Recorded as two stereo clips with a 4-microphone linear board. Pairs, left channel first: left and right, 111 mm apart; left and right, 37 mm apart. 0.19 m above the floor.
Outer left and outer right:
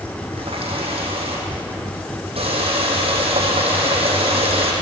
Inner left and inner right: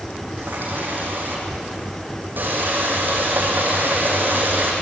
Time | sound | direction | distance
0.4 | a running tap | 55° right (ahead or behind) | 6 m